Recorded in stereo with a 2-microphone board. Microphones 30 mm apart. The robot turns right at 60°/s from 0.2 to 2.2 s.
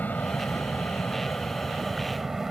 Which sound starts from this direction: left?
An aircraft, at 0.0 s.